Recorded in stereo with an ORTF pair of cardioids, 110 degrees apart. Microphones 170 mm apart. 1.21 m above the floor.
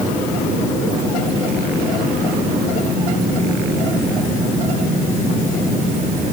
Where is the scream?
I don't hear a scream.